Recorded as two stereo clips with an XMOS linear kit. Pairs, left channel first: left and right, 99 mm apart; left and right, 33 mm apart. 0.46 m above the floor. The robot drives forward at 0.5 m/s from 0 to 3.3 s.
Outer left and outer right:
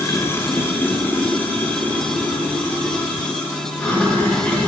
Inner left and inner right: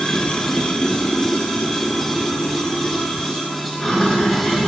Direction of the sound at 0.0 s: 30° left (ahead or behind).